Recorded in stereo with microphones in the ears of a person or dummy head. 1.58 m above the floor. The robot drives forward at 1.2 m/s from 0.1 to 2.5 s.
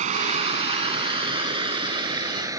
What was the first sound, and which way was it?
Running water, 40° right (ahead or behind).